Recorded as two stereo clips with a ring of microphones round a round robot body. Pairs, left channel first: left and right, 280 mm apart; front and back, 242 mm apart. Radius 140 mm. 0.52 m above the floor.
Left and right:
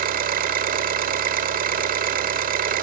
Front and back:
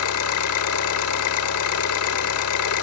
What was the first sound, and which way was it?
An engine running, 30° right.